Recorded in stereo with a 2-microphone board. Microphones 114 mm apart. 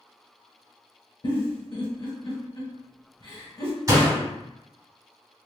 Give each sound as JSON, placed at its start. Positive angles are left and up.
{"t": 1.2, "sound": "a giggle", "side_deg": 45, "distance_m": 1.8}
{"t": 3.9, "sound": "a door slam", "side_deg": -30, "distance_m": 1.3}